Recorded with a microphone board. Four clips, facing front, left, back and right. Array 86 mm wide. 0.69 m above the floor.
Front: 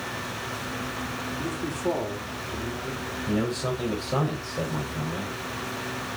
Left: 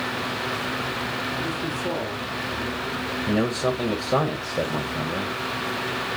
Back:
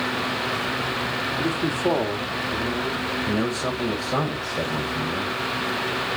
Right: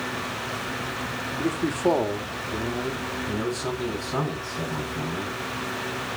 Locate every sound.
1.4 s a man speaking: 125° right, 1.5 m
3.3 s a man speaking: 100° left, 3.5 m